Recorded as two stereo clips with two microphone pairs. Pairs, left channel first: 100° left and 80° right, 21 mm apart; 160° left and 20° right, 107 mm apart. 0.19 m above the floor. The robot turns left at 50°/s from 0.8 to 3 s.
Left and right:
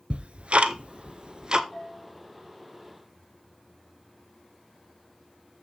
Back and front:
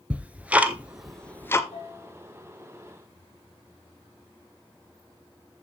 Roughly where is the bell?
Behind left.